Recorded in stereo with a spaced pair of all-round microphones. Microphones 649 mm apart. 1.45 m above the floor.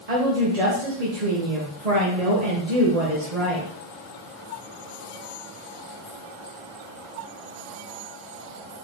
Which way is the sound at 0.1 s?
75° right (ahead or behind).